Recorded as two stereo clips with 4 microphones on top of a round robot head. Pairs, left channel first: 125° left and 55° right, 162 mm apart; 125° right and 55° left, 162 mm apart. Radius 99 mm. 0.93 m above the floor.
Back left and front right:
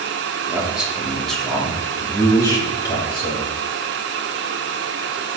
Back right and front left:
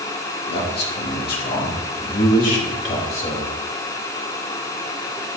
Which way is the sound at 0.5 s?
135° right.